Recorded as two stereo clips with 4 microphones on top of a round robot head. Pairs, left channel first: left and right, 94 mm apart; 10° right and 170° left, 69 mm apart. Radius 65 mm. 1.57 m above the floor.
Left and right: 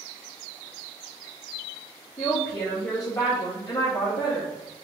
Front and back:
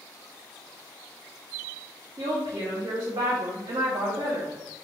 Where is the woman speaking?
150° left, 1.1 m.